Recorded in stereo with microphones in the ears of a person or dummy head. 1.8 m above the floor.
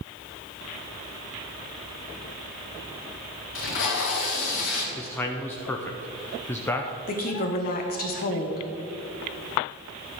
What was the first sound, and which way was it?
Tape being pulled, 65° left (ahead or behind).